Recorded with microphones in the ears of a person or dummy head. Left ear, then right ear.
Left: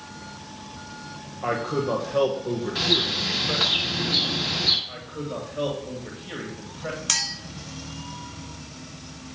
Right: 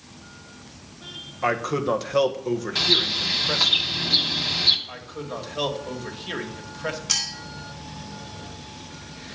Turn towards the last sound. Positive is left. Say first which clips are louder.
# left 1 dB
turn(degrees=30)  # may be behind; listen again after turning